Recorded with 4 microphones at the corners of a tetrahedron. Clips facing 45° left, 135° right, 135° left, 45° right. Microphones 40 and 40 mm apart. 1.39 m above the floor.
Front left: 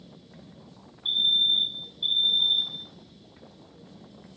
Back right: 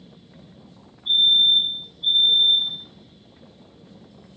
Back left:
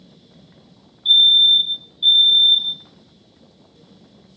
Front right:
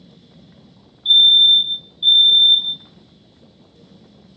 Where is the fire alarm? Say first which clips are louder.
Back right 6 dB, front right 1 dB; 55° left, 2.5 m.